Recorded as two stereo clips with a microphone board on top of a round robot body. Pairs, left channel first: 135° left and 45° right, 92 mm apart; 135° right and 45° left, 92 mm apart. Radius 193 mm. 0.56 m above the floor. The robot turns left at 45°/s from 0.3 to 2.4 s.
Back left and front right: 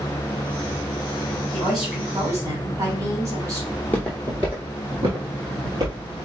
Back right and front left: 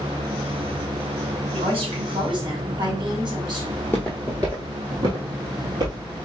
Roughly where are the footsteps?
Behind.